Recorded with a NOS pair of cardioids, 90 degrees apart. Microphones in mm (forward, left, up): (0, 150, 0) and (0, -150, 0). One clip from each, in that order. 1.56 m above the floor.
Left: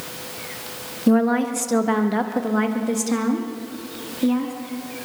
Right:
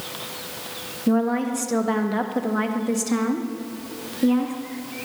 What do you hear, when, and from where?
1.1 s a woman speaking: 25° left, 2 m; by 4.5 s 10° right, 4 m